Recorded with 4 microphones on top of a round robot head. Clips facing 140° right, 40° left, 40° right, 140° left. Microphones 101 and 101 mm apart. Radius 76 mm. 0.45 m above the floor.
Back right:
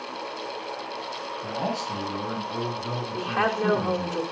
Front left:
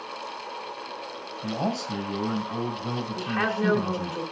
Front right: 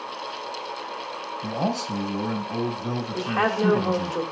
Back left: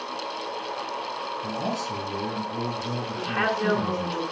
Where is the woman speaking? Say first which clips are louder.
Back right 3 dB, front right 3 dB; 85° right, 2.0 m.